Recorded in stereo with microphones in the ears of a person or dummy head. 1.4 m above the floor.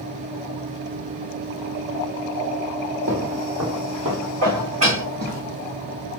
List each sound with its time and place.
3.1 s footsteps: 55° right (ahead or behind), 2.5 m; by 5.4 s 50° right (ahead or behind), 2.5 m
4.4 s dishes clattering: 45° right (ahead or behind), 2 m